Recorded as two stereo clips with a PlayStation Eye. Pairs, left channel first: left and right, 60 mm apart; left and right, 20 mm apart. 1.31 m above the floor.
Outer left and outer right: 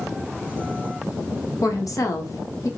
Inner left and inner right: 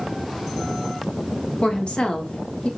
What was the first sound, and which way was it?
A woman speaking, 65° left (ahead or behind).